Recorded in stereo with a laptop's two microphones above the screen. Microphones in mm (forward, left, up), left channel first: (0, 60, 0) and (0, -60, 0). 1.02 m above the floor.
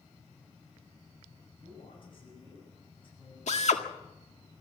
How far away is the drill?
About 1.8 m.